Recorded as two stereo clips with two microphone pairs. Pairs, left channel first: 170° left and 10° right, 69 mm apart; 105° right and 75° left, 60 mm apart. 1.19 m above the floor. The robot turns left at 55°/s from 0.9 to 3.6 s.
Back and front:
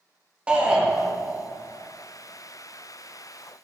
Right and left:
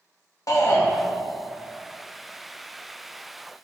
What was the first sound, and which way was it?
A shout, 80° right.